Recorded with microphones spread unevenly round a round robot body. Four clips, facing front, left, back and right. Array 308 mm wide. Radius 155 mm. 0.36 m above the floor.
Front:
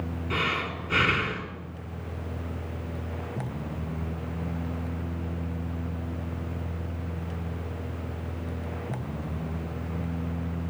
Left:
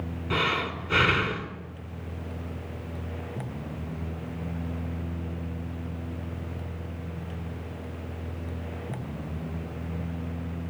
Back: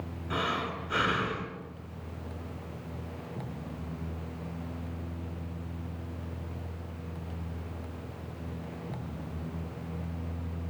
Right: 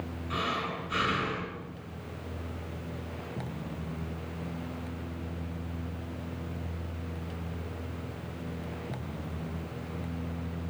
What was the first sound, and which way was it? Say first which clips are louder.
Breathing: left 5 dB, front 1 dB; 50° left.